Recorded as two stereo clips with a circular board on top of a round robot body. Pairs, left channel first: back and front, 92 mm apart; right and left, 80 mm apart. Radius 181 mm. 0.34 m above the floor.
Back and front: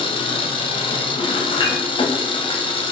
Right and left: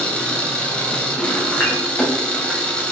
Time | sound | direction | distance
0.0 | an engine running | 165° right | 2.5 m
1.6 | dishes clattering | 155° right | 4.5 m